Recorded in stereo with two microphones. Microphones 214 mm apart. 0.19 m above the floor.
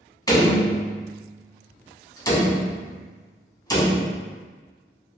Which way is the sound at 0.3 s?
15° left (ahead or behind).